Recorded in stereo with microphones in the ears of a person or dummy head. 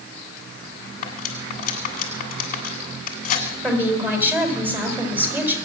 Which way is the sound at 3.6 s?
15° right (ahead or behind).